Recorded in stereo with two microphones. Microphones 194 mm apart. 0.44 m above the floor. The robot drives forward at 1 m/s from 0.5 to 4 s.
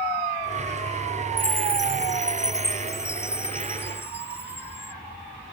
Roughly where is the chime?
Centre.